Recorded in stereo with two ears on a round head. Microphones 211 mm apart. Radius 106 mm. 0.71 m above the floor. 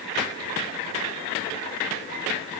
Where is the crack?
No crack in this recording.